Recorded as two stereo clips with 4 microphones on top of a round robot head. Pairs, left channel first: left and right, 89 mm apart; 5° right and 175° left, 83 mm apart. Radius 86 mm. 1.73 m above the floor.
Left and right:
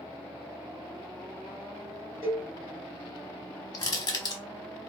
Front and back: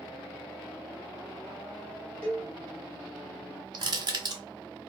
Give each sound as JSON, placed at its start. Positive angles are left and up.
{"t": 2.2, "sound": "a cowbell", "azimuth_deg": 30, "distance_m": 1.6}
{"t": 3.7, "sound": "crushing", "azimuth_deg": 135, "distance_m": 0.8}